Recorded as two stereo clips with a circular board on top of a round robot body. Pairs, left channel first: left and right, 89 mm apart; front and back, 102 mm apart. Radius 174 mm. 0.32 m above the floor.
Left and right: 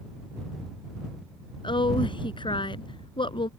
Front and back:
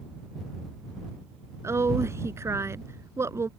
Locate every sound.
1.6 s a woman speaking: 115° left